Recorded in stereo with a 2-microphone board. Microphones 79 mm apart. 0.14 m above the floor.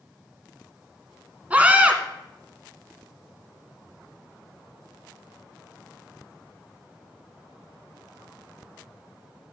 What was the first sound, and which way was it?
A scream, 20° right (ahead or behind).